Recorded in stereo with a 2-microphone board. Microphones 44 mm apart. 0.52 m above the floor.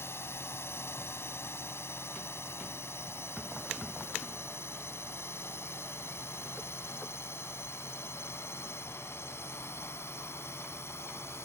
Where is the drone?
70° left (ahead or behind); by 11.4 s 75° left (ahead or behind).